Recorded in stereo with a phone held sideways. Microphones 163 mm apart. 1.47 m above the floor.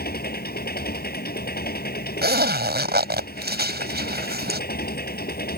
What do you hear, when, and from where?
0.0 s an engine running: 70° left (ahead or behind)
2.2 s a zipper: 80° right